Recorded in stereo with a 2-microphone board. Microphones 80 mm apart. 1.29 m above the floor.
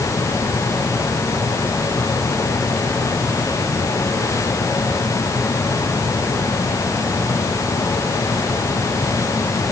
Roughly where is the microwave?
No microwave in this recording.